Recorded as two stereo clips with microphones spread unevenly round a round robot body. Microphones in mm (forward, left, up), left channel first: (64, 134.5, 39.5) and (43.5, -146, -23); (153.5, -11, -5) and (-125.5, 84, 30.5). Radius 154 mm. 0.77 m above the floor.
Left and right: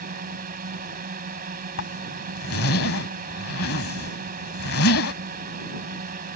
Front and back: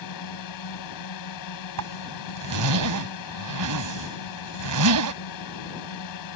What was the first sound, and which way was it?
A drone, 35° right.